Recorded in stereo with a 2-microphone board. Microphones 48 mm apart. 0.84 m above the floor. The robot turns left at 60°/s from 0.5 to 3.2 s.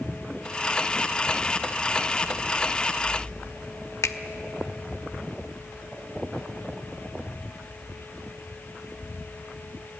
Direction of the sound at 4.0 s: 80° left.